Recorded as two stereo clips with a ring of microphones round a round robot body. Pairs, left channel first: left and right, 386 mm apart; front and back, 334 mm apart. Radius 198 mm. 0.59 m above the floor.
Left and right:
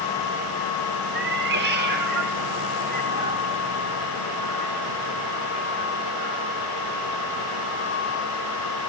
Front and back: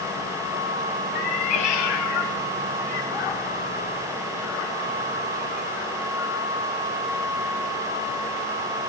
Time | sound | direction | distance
1.1 | a cat meowing | 25° right | 1.3 m